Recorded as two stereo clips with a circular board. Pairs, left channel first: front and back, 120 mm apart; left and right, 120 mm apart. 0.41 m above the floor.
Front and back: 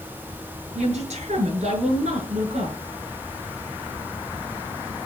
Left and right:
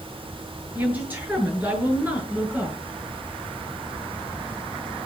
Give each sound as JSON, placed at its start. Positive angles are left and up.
{"t": 0.8, "sound": "a woman speaking", "azimuth_deg": -165, "distance_m": 7.0}